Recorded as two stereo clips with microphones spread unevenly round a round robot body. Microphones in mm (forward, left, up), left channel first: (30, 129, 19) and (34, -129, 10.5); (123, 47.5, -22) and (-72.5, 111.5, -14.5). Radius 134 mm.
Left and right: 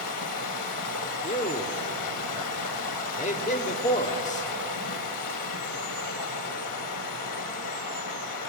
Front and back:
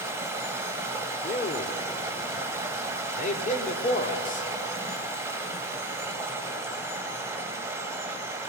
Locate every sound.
0.0 s running water: 85° left, 3 m
1.2 s a man speaking: 30° left, 1.9 m